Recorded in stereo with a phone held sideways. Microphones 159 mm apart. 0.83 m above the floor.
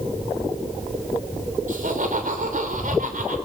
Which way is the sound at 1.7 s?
60° right (ahead or behind).